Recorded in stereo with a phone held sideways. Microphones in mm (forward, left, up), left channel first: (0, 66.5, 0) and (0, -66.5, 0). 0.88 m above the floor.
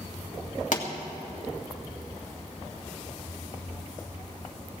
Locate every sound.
0.7 s a pop: 65° left (ahead or behind), 2.0 m